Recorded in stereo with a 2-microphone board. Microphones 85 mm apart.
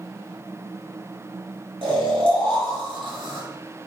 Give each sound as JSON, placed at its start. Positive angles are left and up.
{"t": 1.8, "sound": "snoring", "side_deg": -80, "distance_m": 2.5}